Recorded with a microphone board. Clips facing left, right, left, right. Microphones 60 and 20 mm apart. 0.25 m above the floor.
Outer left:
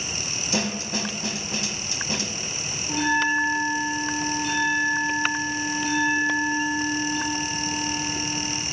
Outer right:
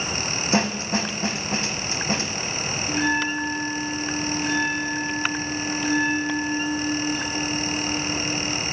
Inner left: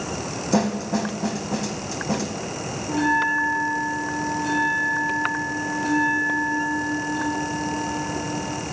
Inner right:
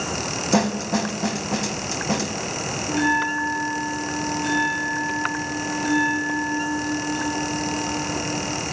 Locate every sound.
0.5 s a snare drum: 40° right (ahead or behind), 0.6 m
2.9 s a bell: 70° right (ahead or behind), 4 m